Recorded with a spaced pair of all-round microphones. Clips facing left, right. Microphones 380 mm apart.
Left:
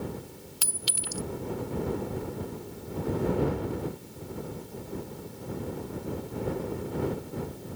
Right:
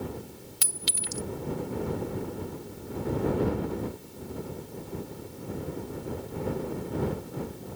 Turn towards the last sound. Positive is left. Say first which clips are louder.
# right 1 dB
turn(degrees=-35)  # may be behind; listen again after turning